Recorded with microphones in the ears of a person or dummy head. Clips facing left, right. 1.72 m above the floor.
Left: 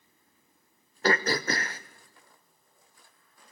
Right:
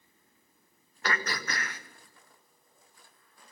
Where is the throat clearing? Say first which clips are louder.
Left 8 dB; 35° left (ahead or behind), 0.8 m.